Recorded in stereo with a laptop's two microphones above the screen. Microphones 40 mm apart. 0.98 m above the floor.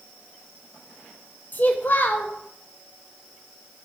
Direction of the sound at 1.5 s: 50° left (ahead or behind).